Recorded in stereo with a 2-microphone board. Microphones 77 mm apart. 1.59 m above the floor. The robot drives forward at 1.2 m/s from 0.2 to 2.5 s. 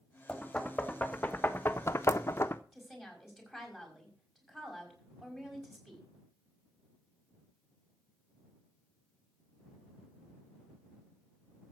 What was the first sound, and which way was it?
Knocking, 10° left (ahead or behind).